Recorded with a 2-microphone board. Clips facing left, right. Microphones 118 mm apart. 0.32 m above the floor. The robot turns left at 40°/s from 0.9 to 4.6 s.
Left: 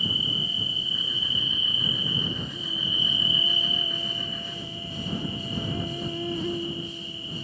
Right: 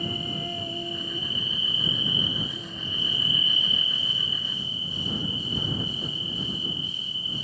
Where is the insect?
115° right; by 7.5 s 100° left.